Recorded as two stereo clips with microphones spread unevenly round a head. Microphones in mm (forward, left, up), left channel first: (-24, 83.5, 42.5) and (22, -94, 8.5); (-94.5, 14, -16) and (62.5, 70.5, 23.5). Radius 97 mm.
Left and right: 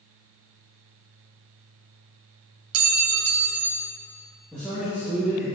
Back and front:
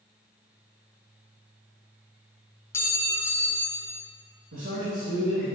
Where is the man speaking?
10° left, 1.8 m.